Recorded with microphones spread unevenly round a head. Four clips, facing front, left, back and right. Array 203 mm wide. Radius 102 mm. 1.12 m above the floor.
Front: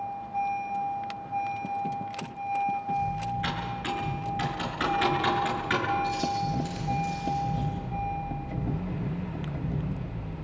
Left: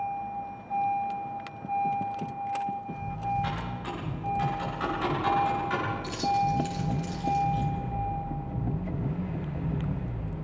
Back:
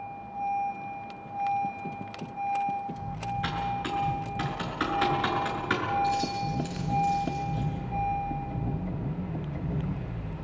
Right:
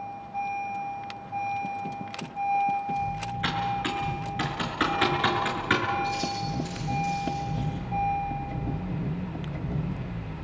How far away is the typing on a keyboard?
About 6 m.